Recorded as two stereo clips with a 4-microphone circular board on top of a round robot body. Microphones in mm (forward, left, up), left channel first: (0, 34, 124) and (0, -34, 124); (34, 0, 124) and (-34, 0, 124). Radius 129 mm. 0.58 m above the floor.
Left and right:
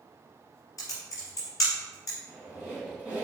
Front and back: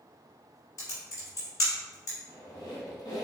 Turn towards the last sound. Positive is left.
turn(degrees=-15)